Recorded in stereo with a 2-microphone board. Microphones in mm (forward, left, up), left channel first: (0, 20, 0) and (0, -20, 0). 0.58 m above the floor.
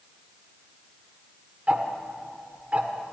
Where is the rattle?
No rattle in this recording.